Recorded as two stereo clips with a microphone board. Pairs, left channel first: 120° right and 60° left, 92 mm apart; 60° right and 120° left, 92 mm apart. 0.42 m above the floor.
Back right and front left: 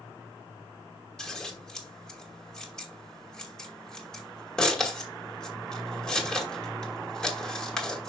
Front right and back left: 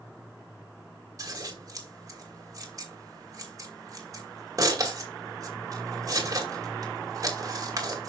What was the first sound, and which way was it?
Scissors, 160° left.